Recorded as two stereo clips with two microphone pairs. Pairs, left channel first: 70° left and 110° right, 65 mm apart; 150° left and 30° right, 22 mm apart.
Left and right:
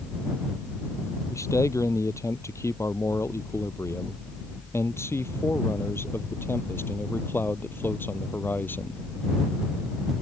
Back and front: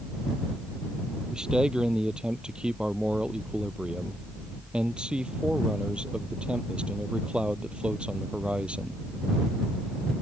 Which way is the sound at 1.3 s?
30° left.